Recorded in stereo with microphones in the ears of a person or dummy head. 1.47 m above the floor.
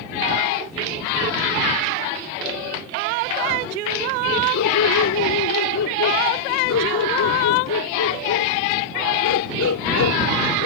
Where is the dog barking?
75° left (ahead or behind); by 10.7 s 70° left (ahead or behind).